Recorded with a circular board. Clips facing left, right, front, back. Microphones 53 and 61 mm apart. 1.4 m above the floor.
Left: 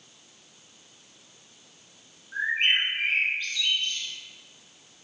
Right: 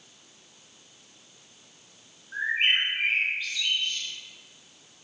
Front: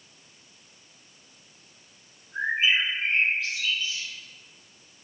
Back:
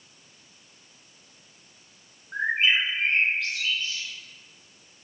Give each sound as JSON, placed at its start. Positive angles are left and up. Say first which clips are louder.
{"t": 2.3, "sound": "a bird", "louder": "even, back 1 dB", "azimuth_deg": -170, "distance_m": 3.0}